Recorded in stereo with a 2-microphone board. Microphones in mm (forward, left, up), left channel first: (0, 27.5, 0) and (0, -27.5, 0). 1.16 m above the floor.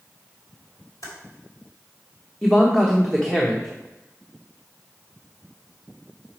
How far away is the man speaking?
About 1.1 m.